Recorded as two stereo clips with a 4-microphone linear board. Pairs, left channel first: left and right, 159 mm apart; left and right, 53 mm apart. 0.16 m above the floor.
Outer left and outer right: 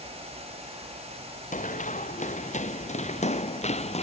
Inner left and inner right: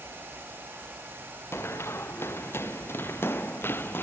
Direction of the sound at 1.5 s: 50° left (ahead or behind).